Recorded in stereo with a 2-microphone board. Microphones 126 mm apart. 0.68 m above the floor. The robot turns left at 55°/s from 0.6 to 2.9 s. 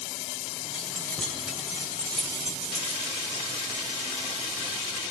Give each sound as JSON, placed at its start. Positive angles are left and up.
{"t": 0.7, "sound": "keys jangling", "side_deg": 35, "distance_m": 2.5}